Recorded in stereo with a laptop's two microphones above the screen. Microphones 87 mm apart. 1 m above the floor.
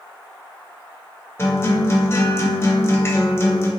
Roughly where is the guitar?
Left.